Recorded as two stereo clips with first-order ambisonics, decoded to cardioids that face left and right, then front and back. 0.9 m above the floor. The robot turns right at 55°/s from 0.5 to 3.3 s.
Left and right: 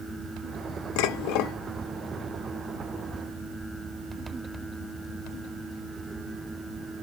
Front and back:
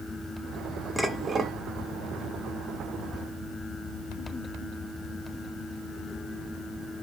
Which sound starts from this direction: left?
Dishes clattering, at 1.0 s.